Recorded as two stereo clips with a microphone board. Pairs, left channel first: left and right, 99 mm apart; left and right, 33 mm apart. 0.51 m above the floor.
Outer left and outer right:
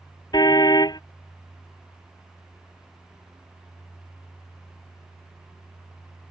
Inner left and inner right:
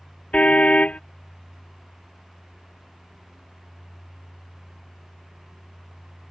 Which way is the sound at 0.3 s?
45° left (ahead or behind).